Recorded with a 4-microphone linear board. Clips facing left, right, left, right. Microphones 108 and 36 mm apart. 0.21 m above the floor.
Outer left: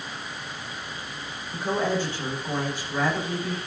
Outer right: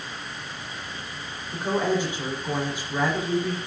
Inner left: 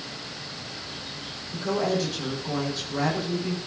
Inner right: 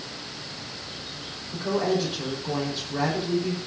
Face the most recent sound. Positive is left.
turn(degrees=-15)  # may be behind; listen again after turning